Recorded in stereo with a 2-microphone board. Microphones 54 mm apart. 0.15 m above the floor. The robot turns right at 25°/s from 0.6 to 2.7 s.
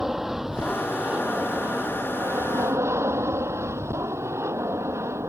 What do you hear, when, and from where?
0.0 s an aircraft: 170° right; by 5.3 s 120° right